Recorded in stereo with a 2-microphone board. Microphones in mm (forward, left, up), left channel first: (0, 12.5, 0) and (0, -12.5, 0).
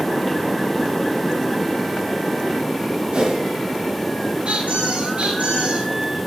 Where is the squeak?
80° right, 3.5 m.